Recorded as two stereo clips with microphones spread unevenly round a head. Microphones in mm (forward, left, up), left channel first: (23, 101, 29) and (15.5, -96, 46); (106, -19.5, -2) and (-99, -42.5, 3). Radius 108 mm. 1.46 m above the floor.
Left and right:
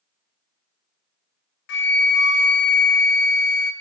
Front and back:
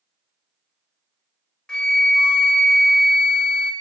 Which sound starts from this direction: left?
A flute, at 1.7 s.